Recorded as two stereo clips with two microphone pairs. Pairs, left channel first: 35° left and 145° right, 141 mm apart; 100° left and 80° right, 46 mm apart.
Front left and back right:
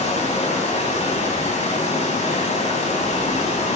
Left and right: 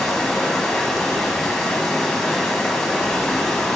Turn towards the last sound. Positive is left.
turn(degrees=20)